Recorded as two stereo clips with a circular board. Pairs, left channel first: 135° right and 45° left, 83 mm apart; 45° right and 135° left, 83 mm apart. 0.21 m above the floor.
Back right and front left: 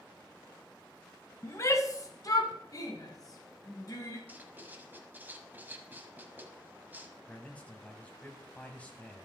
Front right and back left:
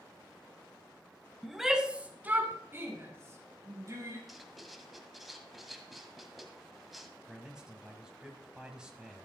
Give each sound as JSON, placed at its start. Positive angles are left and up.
{"t": 1.4, "sound": "a shout", "azimuth_deg": -135, "distance_m": 1.1}
{"t": 4.3, "sound": "writing", "azimuth_deg": 45, "distance_m": 1.1}
{"t": 7.3, "sound": "a man speaking", "azimuth_deg": -165, "distance_m": 1.6}